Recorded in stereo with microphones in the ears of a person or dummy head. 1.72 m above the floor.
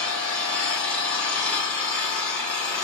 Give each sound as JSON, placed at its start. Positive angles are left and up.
{"t": 0.0, "sound": "an engine running", "side_deg": 5, "distance_m": 2.0}